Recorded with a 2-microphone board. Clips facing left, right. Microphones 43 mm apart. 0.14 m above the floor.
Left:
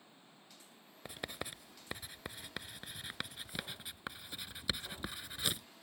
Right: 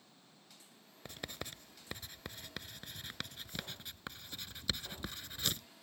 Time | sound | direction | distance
0.0 | running water | 20° left (ahead or behind) | ?
1.1 | writing | 10° left (ahead or behind) | ?